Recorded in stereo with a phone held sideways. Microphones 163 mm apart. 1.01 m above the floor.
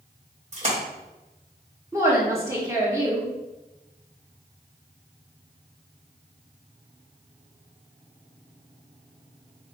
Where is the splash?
45° right (ahead or behind), 1.4 m.